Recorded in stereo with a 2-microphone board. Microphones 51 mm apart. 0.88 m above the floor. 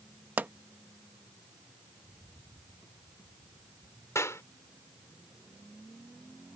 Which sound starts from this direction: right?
A pop, at 0.4 s.